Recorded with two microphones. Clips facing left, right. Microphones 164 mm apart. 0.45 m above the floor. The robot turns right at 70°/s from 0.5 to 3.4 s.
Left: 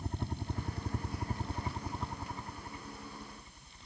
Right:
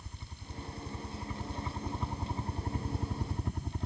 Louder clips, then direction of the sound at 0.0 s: Left 12 dB; 75° left.